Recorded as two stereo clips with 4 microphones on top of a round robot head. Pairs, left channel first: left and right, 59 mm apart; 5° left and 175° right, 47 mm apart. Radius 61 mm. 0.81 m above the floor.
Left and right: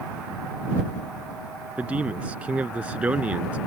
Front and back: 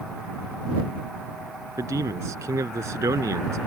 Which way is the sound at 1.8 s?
160° right.